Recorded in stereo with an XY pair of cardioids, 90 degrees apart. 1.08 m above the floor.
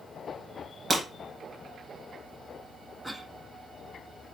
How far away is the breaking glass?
About 4 m.